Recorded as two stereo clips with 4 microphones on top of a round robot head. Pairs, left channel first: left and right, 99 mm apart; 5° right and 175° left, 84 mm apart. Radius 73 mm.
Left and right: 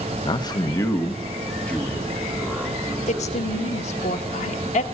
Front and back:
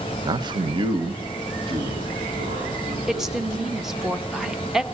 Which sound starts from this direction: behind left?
A man speaking, at 0.2 s.